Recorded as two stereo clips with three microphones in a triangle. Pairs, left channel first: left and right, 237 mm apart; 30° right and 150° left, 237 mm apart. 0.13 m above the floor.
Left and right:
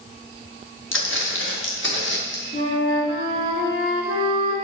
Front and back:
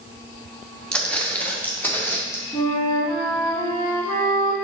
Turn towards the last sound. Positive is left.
turn(degrees=45)